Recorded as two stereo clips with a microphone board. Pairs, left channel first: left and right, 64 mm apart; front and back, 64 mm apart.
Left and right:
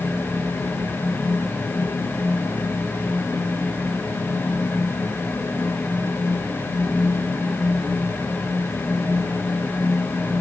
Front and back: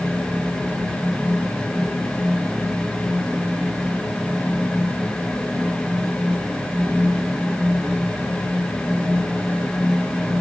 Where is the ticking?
I don't hear ticking.